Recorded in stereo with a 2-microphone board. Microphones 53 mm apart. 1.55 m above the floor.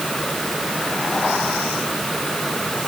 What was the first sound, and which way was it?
Only background noise.